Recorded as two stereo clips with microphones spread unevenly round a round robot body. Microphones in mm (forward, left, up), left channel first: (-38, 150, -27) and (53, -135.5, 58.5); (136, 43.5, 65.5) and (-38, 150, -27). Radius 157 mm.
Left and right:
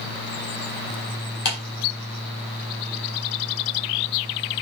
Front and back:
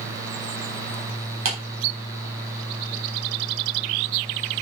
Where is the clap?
160° left, 3.5 m.